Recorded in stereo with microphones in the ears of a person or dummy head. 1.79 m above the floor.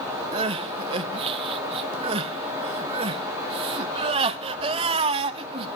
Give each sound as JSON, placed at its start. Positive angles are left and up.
{"t": 0.3, "sound": "crying", "side_deg": -30, "distance_m": 0.7}